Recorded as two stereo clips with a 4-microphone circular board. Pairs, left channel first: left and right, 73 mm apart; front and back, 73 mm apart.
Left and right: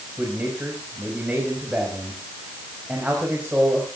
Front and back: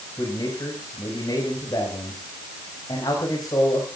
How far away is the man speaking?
About 4.5 m.